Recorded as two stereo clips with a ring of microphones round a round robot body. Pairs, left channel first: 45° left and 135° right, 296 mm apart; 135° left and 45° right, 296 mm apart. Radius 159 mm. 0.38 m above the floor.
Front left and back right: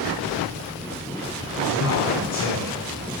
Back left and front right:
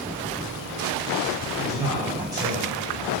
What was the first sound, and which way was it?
A man speaking, 30° left.